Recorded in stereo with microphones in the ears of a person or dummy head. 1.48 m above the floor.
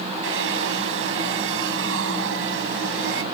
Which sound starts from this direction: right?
A hair dryer, at 0.2 s.